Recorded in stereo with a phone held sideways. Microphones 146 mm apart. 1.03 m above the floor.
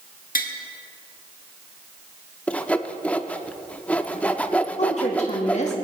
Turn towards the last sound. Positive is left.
turn(degrees=50)  # may be behind; listen again after turning